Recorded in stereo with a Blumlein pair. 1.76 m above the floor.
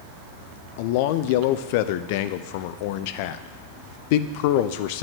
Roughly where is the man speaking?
Ahead left.